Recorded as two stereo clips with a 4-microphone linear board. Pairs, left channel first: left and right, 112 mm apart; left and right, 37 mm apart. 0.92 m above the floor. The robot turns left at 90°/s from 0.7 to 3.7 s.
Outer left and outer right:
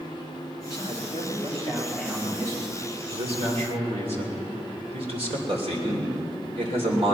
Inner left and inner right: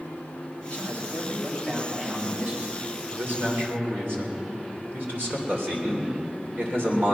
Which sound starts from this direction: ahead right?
A man speaking, at 3.1 s.